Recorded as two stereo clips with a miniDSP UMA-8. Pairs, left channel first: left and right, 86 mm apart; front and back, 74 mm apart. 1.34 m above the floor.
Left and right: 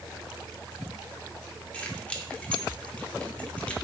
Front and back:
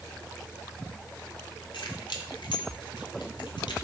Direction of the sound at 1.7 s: 15° left.